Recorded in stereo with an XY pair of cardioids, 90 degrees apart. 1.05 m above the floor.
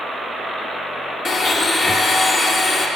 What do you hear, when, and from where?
1.2 s a blender: 50° left, 1.0 m